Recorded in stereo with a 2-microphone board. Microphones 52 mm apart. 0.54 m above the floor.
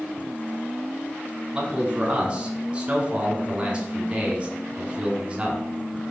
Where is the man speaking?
20° right (ahead or behind), 1.1 m.